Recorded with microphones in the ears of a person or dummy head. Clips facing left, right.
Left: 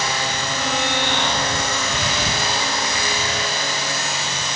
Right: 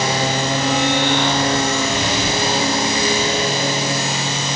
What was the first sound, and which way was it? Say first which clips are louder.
A lawn mower: right 6 dB; 20° right (ahead or behind).